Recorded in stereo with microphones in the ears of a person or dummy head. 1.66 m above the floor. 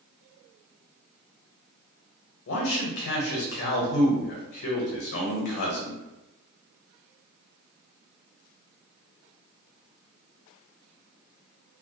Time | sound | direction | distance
2.5 | a man speaking | 60° left (ahead or behind) | 0.8 m